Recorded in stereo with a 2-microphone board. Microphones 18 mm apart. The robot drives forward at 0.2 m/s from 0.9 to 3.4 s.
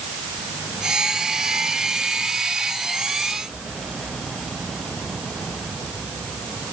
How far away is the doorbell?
I don't hear a doorbell.